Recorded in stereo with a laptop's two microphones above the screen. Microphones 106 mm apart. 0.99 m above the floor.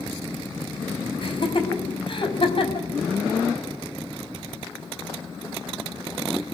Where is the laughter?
55° left (ahead or behind), 6 m.